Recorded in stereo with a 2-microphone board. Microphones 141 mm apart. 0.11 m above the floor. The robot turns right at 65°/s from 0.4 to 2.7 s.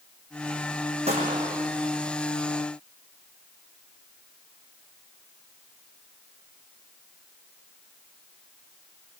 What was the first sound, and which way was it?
A gunshot, 50° right.